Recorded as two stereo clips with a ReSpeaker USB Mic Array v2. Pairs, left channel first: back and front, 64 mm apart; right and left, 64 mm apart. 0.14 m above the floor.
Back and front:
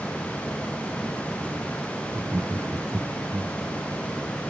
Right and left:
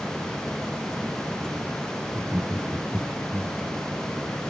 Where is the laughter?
20° left, 2 m; by 3.5 s 10° right, 1.7 m.